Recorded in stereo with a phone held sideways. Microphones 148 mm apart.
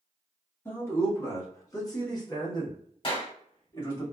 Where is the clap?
35° left (ahead or behind), 1.3 m.